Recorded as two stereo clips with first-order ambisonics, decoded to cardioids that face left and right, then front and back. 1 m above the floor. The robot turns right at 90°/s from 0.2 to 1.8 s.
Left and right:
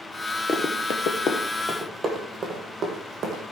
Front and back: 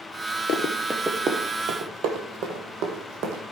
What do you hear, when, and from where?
0.5 s running footsteps: 25° left, 1.2 m; by 3.5 s 150° right, 3 m